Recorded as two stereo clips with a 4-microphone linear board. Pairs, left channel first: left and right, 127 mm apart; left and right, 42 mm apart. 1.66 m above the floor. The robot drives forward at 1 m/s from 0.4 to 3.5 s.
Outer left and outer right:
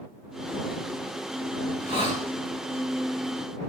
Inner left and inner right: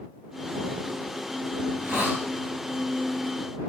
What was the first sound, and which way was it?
A hiss, 50° right (ahead or behind).